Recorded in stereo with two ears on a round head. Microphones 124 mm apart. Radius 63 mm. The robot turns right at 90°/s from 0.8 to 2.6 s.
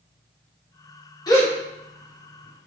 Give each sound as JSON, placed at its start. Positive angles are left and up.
{"t": 1.3, "sound": "a gasp", "side_deg": 30, "distance_m": 1.2}